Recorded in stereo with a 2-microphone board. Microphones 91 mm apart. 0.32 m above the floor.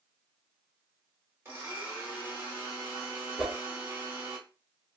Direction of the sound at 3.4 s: 15° right (ahead or behind).